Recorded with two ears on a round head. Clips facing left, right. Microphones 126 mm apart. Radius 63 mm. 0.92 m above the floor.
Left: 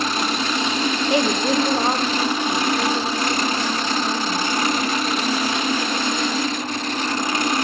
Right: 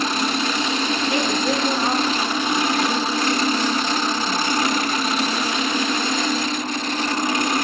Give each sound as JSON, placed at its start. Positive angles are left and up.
{"t": 1.1, "sound": "a woman speaking", "side_deg": 20, "distance_m": 1.4}